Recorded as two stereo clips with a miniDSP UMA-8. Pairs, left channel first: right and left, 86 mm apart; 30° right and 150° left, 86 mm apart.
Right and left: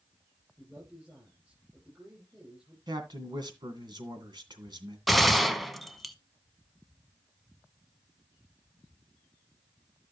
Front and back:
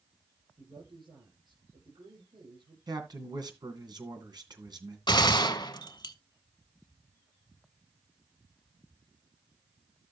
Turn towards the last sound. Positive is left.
turn(degrees=0)